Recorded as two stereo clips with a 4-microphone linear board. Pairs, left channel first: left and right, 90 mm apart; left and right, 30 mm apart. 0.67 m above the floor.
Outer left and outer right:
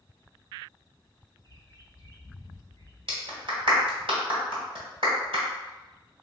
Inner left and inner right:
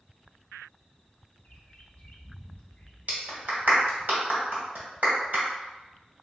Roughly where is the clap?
Right.